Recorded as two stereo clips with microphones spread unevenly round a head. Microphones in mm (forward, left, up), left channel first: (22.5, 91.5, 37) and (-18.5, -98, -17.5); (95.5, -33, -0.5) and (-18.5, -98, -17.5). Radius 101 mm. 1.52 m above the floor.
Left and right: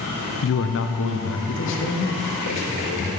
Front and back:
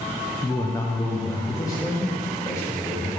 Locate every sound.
0.4 s a man speaking: 110° left, 0.6 m; by 3.1 s 105° left, 2.5 m